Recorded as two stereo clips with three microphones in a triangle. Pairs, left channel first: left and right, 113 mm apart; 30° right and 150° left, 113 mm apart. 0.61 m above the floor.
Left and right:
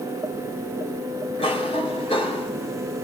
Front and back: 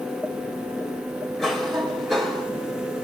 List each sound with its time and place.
1.4 s a cough: 60° left, 3.5 m